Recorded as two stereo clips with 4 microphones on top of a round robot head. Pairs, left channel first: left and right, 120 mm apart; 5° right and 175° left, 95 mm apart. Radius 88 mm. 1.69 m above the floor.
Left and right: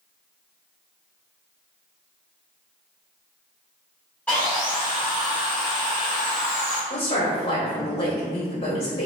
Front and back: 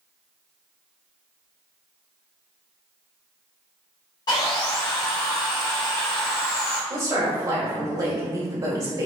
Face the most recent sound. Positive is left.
turn(degrees=135)